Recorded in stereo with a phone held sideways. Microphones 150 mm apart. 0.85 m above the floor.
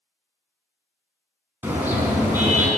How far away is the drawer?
No drawer in this recording.